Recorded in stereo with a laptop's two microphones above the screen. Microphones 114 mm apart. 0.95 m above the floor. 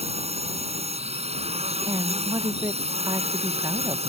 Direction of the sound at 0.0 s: 70° right (ahead or behind).